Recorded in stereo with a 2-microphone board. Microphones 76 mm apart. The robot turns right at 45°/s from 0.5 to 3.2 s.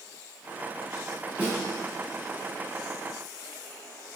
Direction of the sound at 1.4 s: 20° right (ahead or behind).